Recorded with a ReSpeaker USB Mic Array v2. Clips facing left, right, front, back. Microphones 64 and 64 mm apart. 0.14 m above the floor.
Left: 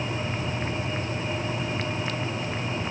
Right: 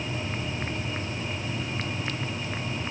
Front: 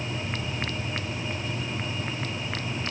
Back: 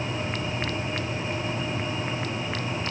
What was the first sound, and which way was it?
Only background noise.